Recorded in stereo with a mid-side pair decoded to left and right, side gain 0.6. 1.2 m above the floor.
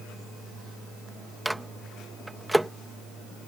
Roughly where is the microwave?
Ahead.